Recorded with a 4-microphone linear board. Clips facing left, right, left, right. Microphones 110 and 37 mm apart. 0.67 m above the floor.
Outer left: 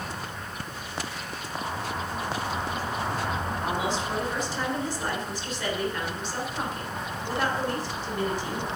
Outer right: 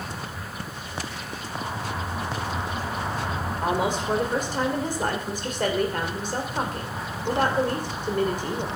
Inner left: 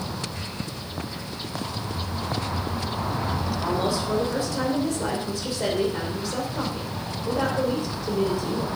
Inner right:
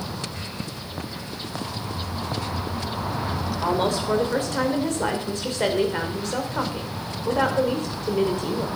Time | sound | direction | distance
3.6 | a woman speaking | 50° right (ahead or behind) | 2.5 m